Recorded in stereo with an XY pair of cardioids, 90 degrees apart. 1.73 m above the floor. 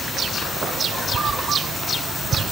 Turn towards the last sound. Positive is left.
No sound to turn to.